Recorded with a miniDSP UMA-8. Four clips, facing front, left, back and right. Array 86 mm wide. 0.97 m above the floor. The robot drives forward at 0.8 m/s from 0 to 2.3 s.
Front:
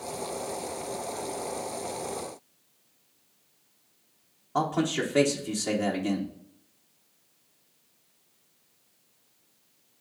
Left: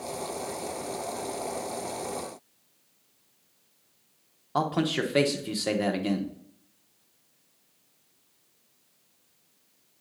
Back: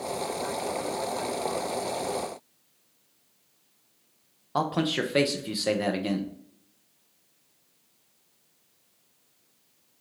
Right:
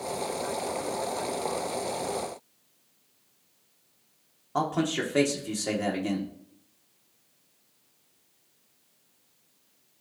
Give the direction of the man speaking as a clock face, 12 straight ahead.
7 o'clock.